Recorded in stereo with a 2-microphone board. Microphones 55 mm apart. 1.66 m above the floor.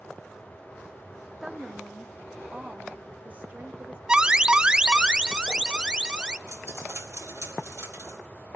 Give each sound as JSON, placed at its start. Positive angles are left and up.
{"t": 1.4, "sound": "a woman speaking", "side_deg": -5, "distance_m": 1.5}
{"t": 4.1, "sound": "an alarm", "side_deg": -15, "distance_m": 0.8}
{"t": 6.5, "sound": "a dropped coin", "side_deg": -55, "distance_m": 2.5}